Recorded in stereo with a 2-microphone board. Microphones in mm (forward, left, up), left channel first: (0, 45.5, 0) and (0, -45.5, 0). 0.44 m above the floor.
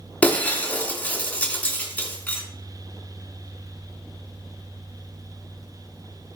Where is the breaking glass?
15° left (ahead or behind), 2.5 m.